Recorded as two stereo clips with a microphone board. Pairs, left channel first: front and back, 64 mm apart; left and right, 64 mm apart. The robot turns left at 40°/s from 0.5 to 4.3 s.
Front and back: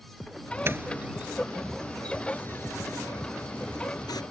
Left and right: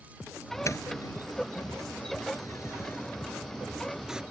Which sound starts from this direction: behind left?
A doorbell, at 0.7 s.